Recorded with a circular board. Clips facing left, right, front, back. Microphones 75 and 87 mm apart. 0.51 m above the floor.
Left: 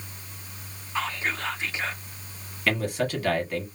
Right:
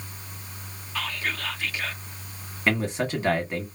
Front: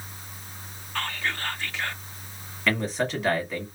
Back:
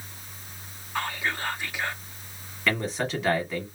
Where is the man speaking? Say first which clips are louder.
Right 1 dB, front 1 dB; 90° right, 1.3 m.